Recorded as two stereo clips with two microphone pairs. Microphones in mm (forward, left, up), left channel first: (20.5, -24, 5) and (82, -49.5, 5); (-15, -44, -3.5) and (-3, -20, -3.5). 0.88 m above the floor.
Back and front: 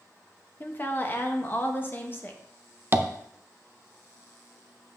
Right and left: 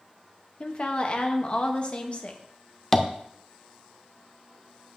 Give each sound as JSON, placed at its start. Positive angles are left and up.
{"t": 0.6, "sound": "a woman speaking", "azimuth_deg": -150, "distance_m": 1.0}
{"t": 2.9, "sound": "tapping", "azimuth_deg": -55, "distance_m": 0.6}